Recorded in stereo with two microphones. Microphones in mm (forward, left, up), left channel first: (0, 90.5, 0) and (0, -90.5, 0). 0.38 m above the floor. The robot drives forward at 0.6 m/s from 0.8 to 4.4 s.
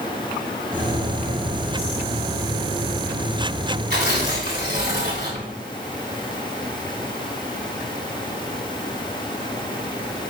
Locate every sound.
3.9 s tearing paper: 65° right (ahead or behind), 3 m; by 5.5 s 60° right (ahead or behind), 3.5 m